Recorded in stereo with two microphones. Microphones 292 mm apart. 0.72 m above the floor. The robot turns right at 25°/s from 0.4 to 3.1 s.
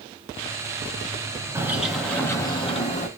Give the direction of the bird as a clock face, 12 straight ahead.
12 o'clock.